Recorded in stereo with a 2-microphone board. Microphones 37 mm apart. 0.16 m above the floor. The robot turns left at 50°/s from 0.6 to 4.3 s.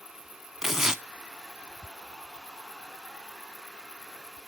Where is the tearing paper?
10° right (ahead or behind), 0.5 m; by 1.0 s 15° right (ahead or behind), 0.5 m.